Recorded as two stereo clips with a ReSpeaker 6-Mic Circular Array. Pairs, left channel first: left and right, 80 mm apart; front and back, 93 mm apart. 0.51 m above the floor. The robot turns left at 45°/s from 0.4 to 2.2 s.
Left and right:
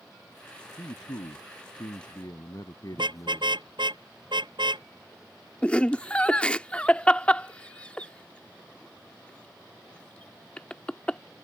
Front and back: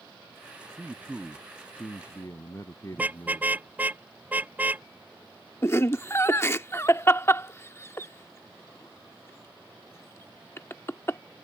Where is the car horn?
105° right.